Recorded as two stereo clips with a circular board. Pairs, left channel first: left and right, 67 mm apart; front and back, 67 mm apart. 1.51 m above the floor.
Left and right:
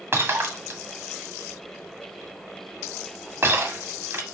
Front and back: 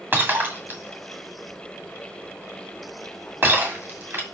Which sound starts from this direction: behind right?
Breaking glass, at 0.1 s.